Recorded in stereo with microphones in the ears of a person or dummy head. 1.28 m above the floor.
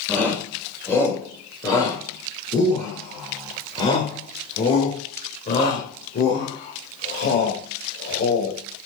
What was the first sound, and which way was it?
A shout, 10° left (ahead or behind).